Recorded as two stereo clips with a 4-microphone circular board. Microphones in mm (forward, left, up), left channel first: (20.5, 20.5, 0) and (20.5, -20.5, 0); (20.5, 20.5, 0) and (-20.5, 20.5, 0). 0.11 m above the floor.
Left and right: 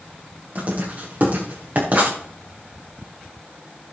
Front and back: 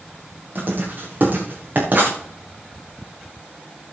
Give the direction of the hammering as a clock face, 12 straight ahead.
No hammering in this recording.